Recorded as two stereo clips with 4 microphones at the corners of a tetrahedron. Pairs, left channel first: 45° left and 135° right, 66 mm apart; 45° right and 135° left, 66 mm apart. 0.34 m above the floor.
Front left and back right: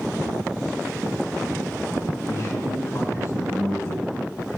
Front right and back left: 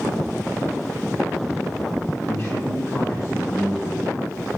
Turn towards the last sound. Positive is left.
turn(degrees=0)